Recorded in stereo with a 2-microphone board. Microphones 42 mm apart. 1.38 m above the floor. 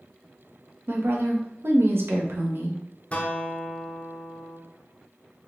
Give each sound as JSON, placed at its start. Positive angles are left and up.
{"t": 0.9, "sound": "a woman speaking", "side_deg": -70, "distance_m": 0.7}
{"t": 3.1, "sound": "a guitar", "side_deg": 30, "distance_m": 0.6}